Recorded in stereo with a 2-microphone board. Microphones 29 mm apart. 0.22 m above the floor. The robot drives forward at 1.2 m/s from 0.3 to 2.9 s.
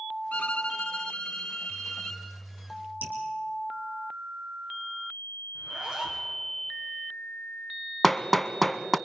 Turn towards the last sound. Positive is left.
turn(degrees=5)  # may be behind; listen again after turning